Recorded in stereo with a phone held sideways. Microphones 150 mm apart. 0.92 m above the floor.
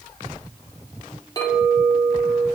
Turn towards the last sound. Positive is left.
turn(degrees=25)  # may be behind; listen again after turning